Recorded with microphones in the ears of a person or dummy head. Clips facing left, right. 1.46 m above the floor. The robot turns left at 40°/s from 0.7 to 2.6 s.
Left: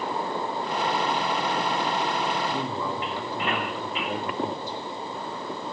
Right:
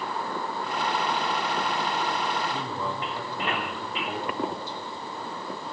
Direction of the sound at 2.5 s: 70° left (ahead or behind).